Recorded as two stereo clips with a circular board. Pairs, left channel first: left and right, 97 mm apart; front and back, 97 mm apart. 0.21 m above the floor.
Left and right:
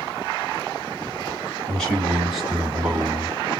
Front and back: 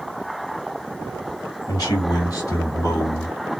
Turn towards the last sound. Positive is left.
turn(degrees=-30)